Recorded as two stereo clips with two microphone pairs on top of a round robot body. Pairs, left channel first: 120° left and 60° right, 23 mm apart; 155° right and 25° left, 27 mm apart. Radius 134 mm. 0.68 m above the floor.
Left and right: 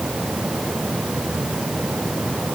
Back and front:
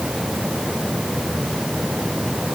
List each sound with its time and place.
Only background noise.